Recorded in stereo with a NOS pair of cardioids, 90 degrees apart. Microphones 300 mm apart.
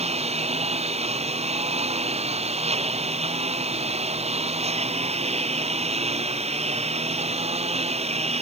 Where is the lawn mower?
20° right.